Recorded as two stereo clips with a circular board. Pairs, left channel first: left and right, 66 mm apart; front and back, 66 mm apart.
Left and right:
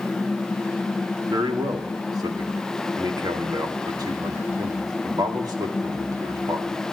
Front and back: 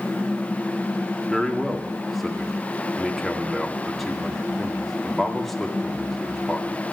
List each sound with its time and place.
1.3 s a man speaking: 90° right, 1.9 m